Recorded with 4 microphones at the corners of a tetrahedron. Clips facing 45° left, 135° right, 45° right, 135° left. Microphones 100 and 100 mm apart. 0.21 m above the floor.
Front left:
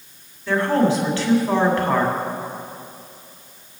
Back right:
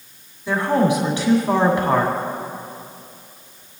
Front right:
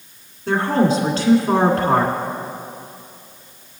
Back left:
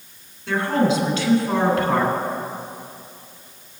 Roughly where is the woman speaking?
Right.